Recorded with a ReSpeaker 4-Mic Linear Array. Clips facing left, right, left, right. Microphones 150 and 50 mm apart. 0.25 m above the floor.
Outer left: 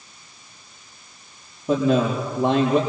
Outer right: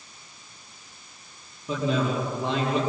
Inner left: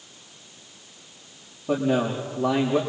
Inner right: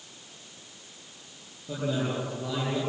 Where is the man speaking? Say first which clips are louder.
Outer left 6 dB, inner left 7 dB; 45° left (ahead or behind), 5.5 m.